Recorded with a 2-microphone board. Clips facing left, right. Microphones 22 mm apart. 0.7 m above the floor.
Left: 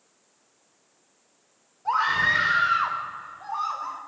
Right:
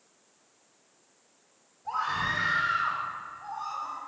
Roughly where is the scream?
Left.